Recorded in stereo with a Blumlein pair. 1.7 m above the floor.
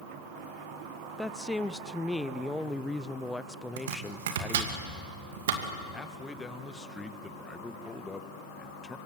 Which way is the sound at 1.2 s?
5° left.